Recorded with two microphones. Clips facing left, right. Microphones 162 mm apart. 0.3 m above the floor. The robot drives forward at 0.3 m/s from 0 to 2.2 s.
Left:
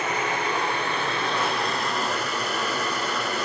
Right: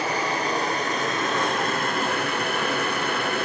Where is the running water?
35° right (ahead or behind), 1.5 m; by 3.4 s 55° right (ahead or behind), 1.0 m.